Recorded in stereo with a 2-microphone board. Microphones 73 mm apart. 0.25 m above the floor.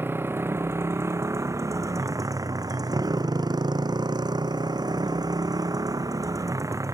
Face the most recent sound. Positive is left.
turn(degrees=-45)  # may be behind; listen again after turning